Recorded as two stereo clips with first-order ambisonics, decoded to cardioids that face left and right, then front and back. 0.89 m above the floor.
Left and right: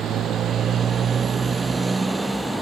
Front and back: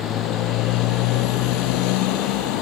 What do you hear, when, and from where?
0.0 s a motorcycle: 40° right; by 2.6 s 5° left